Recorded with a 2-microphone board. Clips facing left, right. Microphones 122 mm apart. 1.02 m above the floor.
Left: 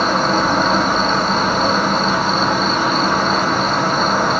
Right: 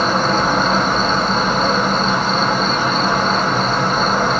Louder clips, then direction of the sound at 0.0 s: Even; centre (ahead or behind).